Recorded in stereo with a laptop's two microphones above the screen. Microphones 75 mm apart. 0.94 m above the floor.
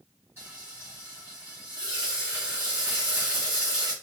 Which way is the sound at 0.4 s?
35° right (ahead or behind).